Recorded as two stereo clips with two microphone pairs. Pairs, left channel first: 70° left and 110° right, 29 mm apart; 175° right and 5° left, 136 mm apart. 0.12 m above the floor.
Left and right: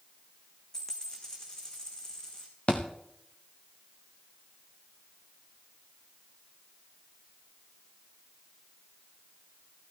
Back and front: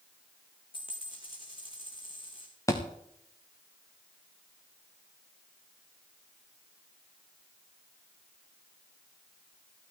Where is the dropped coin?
135° left, 4 m.